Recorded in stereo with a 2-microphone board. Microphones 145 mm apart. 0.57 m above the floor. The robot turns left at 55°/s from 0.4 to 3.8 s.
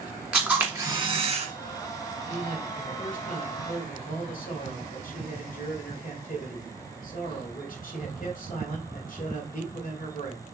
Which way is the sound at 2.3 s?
160° left.